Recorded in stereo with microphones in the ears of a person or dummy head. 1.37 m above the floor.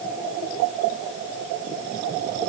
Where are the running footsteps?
No running footsteps in this recording.